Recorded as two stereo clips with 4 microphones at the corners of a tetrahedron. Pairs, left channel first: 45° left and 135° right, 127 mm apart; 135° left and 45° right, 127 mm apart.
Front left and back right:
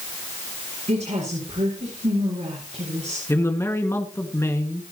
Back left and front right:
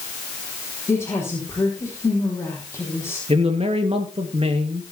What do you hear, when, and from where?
0.9 s a woman speaking: 160° right, 5.5 m
3.3 s a man speaking: 20° right, 2.5 m